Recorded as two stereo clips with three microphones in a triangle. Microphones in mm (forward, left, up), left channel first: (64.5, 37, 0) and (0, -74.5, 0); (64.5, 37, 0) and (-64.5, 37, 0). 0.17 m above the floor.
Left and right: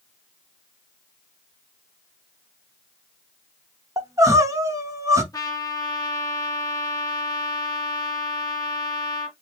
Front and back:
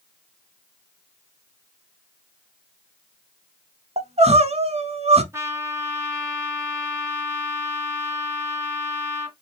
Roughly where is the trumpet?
Behind left.